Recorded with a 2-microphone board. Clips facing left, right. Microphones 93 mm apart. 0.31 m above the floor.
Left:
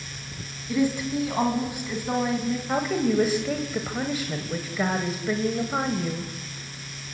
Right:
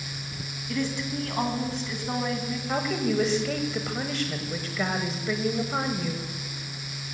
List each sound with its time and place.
0.7 s a woman speaking: 10° left (ahead or behind), 2.5 m
2.7 s a woman speaking: 10° left (ahead or behind), 1.8 m